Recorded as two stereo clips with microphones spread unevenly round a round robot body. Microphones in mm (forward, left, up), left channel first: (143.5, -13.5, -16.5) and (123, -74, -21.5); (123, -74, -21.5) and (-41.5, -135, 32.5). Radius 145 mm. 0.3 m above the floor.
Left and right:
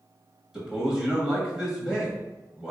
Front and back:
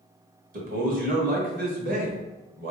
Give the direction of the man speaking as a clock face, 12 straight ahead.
6 o'clock.